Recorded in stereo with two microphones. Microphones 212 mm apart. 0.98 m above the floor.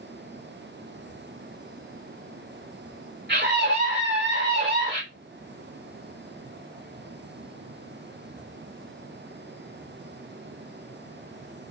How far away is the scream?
About 3 m.